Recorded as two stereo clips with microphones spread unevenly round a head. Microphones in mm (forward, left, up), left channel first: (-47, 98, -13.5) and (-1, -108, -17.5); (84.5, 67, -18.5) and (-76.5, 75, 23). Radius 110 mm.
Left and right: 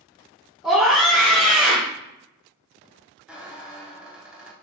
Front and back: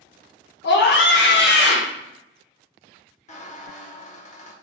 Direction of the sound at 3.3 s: 5° left.